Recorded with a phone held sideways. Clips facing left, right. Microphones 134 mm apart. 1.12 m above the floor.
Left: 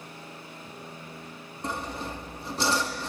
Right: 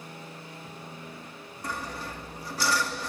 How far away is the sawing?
About 2.0 m.